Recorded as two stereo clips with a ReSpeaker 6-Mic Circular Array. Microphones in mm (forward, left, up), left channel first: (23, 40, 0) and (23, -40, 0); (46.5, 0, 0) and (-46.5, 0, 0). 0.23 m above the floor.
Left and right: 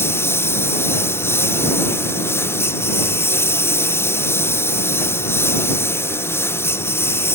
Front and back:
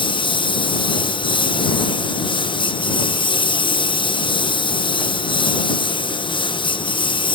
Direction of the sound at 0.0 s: 30° left.